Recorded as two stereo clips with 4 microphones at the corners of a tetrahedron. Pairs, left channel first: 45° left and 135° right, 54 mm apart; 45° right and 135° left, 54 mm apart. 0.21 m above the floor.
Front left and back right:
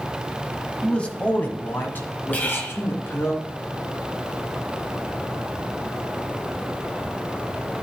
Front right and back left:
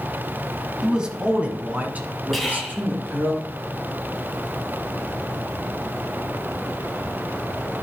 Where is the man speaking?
85° left, 1.1 m.